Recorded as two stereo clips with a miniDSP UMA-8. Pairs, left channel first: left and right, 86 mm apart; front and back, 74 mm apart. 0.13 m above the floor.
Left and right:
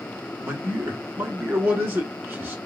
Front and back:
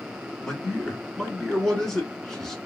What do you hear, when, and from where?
0.4 s a man speaking: 75° right, 1.1 m